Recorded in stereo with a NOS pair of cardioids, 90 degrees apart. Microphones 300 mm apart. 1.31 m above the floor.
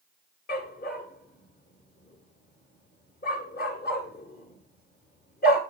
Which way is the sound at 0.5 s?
35° left.